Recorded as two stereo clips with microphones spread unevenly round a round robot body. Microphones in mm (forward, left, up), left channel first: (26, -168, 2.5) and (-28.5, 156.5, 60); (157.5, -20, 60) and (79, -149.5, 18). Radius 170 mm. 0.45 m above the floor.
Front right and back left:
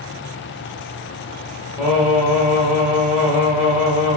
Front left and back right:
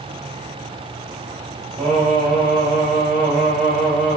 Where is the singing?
165° right, 1.1 m.